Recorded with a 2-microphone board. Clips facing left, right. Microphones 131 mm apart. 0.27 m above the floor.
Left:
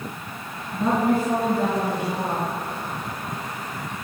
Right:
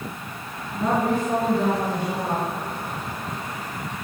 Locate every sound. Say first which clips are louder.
0.7 s a woman speaking: left 1 dB; 10° left (ahead or behind), 4 m